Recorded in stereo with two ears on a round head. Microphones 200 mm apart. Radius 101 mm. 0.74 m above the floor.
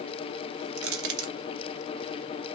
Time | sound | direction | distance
0.8 | crushing | 65° right (ahead or behind) | 0.8 m